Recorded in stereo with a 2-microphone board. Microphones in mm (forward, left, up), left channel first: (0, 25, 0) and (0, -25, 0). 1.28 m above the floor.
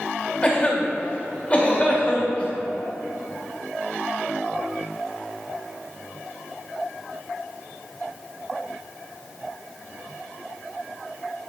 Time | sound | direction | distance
0.4 | a cough | 15° left (ahead or behind) | 2 m